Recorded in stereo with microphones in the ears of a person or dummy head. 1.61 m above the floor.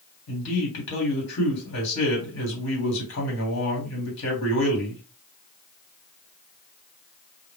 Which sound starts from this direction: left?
A man speaking, at 0.3 s.